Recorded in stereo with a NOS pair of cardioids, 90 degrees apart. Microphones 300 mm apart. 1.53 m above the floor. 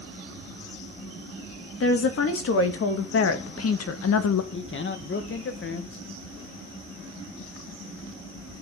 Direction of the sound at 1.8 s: 45° left.